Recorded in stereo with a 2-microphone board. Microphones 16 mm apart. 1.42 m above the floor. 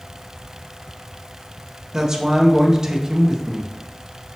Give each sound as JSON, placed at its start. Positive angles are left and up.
{"t": 1.9, "sound": "a man speaking", "side_deg": -35, "distance_m": 1.4}